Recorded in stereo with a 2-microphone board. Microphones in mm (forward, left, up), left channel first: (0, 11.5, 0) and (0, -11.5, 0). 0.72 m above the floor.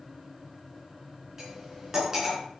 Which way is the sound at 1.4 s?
20° right (ahead or behind).